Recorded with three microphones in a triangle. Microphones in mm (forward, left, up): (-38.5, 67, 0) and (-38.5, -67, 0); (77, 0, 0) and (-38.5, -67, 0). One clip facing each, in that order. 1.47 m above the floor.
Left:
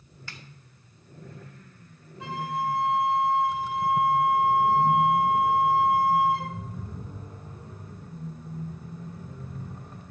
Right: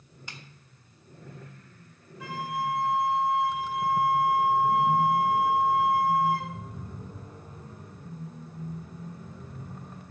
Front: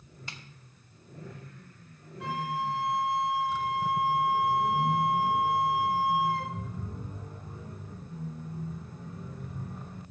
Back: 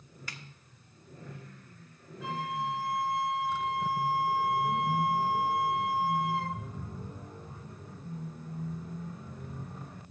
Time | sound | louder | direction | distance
0.3 | a snare drum | even, even | 25° right | 1.0 m
2.2 | a flute | left 2 dB, front 2 dB | 30° left | 2.5 m